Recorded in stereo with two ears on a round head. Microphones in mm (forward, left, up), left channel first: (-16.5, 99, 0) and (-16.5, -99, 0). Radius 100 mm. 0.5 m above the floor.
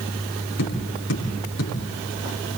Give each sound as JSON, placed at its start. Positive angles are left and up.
{"t": 0.6, "sound": "tapping", "side_deg": 85, "distance_m": 8.5}